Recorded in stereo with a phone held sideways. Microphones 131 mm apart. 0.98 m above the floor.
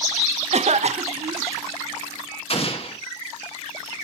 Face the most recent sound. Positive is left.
turn(degrees=45)  # may be behind; listen again after turning